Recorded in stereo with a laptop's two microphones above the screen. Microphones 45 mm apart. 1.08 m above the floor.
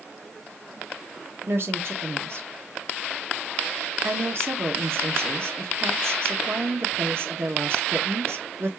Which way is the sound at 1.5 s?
55° right (ahead or behind).